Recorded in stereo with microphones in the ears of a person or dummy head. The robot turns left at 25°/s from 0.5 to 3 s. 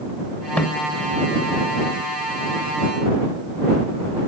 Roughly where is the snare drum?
Centre.